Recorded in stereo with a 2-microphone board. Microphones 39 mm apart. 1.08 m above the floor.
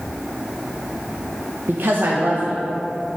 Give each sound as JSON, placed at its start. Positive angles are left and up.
{"t": 1.7, "sound": "a woman speaking", "side_deg": -60, "distance_m": 0.6}